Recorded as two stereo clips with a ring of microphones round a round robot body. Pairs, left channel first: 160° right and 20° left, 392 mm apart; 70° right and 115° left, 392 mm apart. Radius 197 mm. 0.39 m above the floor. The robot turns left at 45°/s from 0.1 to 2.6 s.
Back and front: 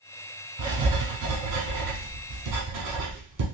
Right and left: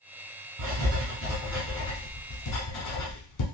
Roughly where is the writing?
Left.